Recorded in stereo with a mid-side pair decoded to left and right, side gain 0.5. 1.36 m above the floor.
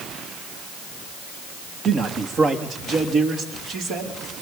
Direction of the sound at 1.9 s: 45° right.